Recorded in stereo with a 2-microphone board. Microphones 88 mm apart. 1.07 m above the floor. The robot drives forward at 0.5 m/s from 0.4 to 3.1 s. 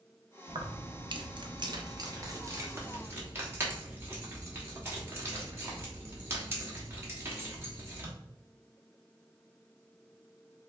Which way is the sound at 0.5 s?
55° right (ahead or behind).